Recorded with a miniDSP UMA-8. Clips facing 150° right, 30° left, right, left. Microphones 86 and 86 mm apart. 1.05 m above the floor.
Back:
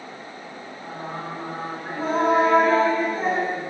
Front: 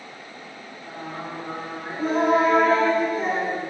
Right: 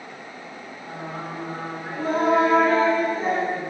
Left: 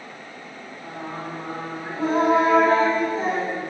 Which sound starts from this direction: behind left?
Singing, at 0.8 s.